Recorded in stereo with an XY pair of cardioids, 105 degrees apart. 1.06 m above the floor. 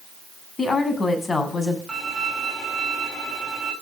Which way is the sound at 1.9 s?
20° right.